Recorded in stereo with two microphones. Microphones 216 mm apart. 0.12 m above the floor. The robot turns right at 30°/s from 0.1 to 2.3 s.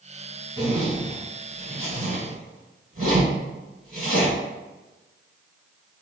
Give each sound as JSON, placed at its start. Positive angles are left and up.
{"t": 0.6, "sound": "a zipper", "side_deg": -15, "distance_m": 1.9}